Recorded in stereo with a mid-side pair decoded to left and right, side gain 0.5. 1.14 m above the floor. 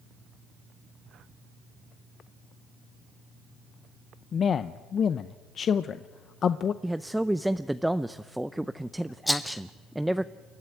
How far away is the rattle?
About 2.0 m.